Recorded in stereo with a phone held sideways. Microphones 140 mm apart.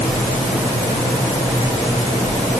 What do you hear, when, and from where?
Only background noise.